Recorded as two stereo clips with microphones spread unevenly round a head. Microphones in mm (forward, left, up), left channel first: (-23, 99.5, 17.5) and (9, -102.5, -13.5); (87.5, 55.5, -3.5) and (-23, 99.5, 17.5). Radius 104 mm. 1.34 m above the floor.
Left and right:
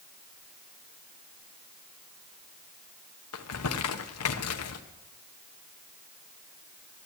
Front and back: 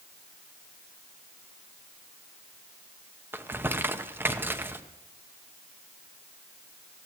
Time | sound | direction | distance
3.3 | crumpling | 80° left | 1.0 m